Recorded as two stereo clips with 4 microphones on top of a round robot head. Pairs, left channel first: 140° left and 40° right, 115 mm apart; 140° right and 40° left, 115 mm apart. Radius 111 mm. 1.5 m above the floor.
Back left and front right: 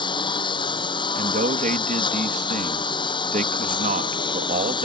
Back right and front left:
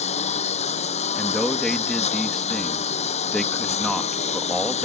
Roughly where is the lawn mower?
Behind.